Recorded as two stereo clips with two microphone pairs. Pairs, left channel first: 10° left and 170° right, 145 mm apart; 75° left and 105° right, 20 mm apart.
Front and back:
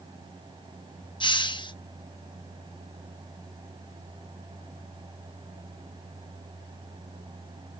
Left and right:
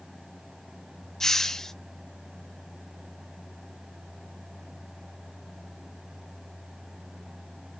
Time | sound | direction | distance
1.2 | a hiss | 30° left | 0.7 m